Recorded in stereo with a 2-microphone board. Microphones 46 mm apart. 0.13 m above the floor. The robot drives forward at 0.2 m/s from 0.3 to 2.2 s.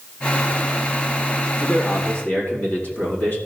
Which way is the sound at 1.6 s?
40° left (ahead or behind).